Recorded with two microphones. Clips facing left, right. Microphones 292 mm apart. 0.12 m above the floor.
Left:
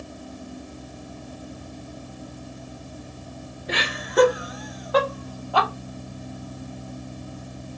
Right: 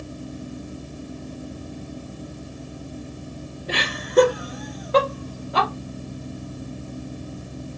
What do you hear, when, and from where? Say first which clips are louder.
3.7 s laughter: right 3 dB; 40° right (ahead or behind), 2 m; by 5.7 s 25° right (ahead or behind), 3 m